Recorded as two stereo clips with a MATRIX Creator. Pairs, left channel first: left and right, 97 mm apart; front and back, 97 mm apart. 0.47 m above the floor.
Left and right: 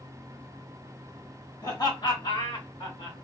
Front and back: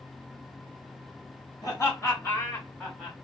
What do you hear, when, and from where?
1.6 s laughter: 50° left, 1.9 m; by 3.1 s 80° left, 1.9 m